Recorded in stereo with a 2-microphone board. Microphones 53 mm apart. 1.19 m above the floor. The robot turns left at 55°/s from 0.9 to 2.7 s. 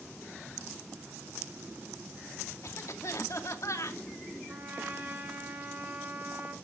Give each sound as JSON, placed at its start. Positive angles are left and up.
{"t": 2.6, "sound": "a cough", "side_deg": 60, "distance_m": 2.0}
{"t": 4.5, "sound": "a trumpet", "side_deg": -35, "distance_m": 4.0}